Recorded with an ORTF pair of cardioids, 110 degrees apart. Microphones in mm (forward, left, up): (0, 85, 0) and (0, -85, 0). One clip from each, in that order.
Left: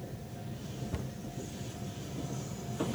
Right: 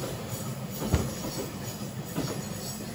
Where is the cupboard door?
50° right.